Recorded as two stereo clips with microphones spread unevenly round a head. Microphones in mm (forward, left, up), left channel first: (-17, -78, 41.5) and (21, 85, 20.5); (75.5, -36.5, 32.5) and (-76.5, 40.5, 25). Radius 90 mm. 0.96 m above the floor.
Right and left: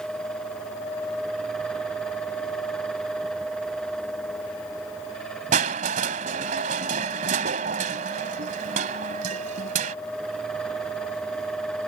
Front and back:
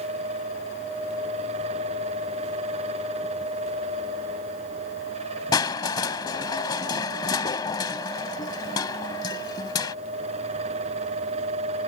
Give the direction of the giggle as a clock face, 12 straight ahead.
I don't hear a giggle.